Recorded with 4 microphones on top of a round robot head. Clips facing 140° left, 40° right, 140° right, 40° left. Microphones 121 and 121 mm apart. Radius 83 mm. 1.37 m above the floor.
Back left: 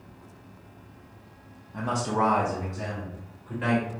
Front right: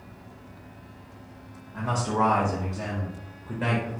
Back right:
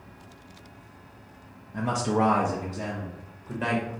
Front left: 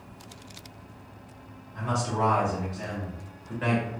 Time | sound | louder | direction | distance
1.7 | a man speaking | even, back right 4 dB | 160° right | 0.6 m